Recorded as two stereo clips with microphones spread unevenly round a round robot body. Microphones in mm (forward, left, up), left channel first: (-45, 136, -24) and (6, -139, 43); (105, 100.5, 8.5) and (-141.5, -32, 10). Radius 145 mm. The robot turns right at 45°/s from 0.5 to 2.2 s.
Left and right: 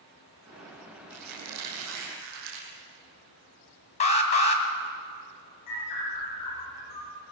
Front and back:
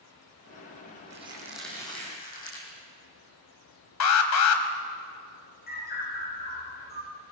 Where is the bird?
85° left, 8 m.